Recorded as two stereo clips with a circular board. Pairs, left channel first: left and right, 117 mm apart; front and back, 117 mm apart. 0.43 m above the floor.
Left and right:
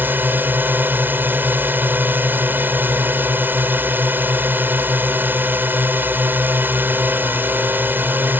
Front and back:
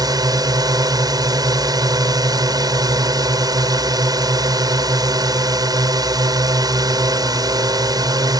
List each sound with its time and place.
0.0 s a drone: 155° right